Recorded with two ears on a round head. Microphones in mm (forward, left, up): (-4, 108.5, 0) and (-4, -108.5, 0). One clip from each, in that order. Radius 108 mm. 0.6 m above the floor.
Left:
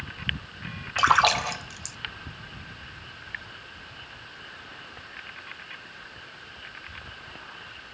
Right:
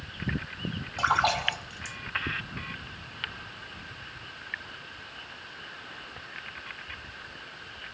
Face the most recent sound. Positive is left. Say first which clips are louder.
# left 5 dB
turn(degrees=50)  # may be behind; listen again after turning